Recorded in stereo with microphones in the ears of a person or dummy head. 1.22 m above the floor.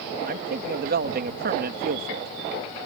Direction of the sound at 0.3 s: 50° right (ahead or behind).